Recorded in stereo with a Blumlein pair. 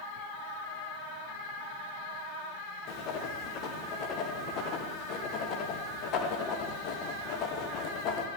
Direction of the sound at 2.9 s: 35° left.